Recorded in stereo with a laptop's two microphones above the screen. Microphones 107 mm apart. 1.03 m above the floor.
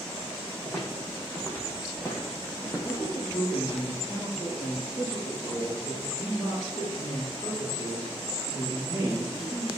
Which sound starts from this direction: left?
A man speaking, at 2.8 s.